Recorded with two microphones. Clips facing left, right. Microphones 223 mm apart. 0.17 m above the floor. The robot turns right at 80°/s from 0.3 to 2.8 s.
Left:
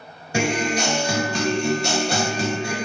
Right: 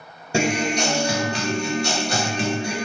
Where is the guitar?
30° right, 1.0 m; by 2.8 s 160° left, 1.0 m.